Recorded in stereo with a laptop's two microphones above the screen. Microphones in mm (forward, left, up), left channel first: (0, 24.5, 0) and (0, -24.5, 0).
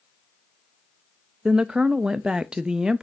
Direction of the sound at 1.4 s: 15° right (ahead or behind).